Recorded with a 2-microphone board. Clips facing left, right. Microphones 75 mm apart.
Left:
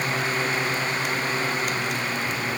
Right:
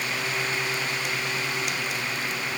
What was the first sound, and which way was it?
Only background noise.